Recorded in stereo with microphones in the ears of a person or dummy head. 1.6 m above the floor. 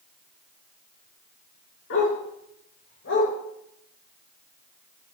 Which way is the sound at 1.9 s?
70° left (ahead or behind).